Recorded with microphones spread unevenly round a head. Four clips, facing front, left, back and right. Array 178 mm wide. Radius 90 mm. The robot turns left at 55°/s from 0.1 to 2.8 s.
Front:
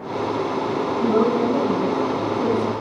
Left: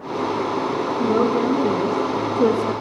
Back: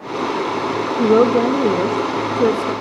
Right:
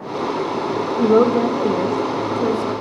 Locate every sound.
1.0 s a woman speaking: 140° right, 0.9 m; by 2.7 s 125° left, 0.9 m